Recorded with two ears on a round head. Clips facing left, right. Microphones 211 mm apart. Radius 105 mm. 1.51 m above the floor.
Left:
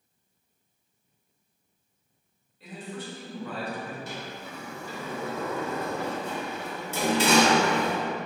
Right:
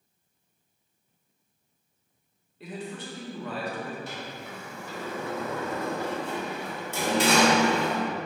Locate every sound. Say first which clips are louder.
2.6 s a man speaking: right 1 dB; 55° right (ahead or behind), 0.9 m
4.1 s a sliding door: even; 75° left (ahead or behind), 0.8 m